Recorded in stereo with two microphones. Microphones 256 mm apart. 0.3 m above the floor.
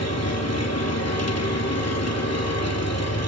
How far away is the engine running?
About 2.5 m.